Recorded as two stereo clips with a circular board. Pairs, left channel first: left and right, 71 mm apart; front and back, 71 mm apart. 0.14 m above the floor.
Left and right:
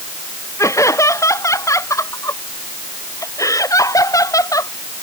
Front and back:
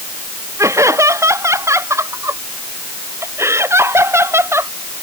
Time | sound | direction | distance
0.6 | laughter | 135° left | ?